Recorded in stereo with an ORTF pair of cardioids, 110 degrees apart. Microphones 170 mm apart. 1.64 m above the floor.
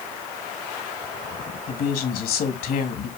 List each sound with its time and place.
1.7 s a woman speaking: 60° left, 2.5 m